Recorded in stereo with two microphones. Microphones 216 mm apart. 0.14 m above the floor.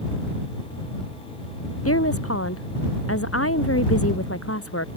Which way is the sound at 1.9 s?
80° left.